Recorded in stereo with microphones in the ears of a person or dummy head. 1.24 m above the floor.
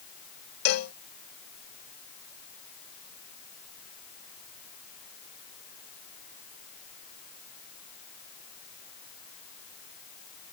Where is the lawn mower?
I don't hear a lawn mower.